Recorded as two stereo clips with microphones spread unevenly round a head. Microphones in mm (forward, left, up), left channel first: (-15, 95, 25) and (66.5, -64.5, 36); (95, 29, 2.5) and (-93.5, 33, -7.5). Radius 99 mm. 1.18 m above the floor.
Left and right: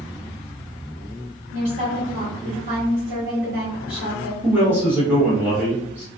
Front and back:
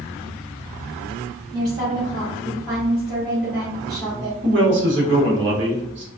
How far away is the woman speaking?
About 1.4 m.